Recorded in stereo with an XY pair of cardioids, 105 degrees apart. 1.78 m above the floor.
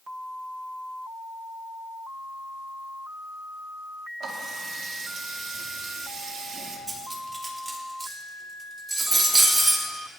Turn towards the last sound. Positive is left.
turn(degrees=-20)